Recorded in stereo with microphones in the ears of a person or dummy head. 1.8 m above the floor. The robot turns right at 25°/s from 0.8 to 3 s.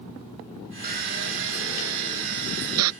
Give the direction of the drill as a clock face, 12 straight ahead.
5 o'clock.